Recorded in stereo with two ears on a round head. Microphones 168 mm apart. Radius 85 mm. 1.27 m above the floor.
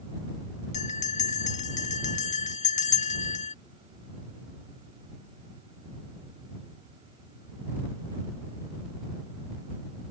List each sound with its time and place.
0.7 s a bell: 40° left (ahead or behind)